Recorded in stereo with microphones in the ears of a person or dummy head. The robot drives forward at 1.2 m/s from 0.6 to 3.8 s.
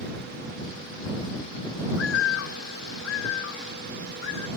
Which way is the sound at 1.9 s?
80° left.